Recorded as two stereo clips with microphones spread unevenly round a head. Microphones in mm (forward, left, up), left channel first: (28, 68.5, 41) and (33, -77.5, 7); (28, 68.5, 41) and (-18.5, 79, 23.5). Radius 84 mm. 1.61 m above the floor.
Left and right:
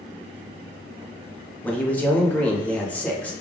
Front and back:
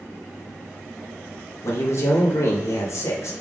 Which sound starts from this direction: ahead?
A man speaking, at 1.6 s.